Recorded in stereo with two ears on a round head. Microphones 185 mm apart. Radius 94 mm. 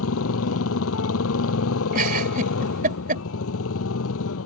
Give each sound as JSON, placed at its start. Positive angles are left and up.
{"t": 0.0, "sound": "a motorcycle", "side_deg": 70}
{"t": 1.9, "sound": "a giggle", "side_deg": -45}